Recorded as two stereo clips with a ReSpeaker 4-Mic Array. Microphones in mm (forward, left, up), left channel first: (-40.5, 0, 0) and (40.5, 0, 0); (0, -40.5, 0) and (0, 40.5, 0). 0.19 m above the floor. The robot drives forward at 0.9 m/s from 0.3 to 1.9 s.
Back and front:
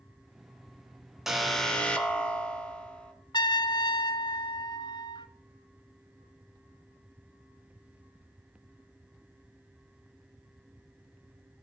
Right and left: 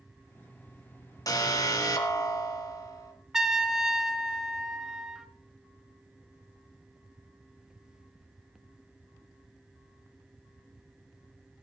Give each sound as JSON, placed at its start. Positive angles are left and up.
{"t": 1.3, "sound": "an alarm", "azimuth_deg": -85, "distance_m": 1.9}
{"t": 3.3, "sound": "a trumpet", "azimuth_deg": 170, "distance_m": 0.9}